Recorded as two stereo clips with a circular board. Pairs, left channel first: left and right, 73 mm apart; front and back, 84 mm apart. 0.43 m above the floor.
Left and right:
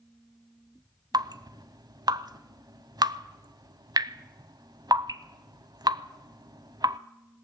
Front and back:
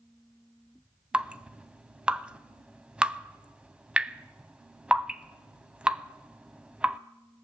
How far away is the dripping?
About 0.6 m.